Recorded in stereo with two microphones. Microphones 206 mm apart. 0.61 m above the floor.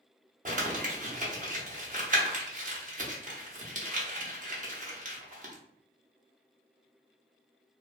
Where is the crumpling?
40° right (ahead or behind), 0.8 m.